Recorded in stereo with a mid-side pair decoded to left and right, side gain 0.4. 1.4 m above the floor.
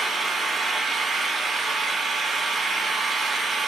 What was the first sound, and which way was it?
An engine running, 30° right.